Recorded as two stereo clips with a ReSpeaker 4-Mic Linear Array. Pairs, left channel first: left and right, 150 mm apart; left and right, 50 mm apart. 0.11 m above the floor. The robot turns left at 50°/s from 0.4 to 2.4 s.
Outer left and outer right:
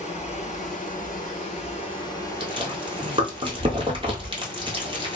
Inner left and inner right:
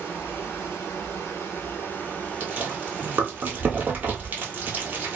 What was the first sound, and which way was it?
Running water, 120° left.